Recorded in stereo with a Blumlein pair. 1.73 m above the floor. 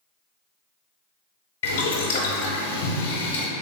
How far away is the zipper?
I don't hear a zipper.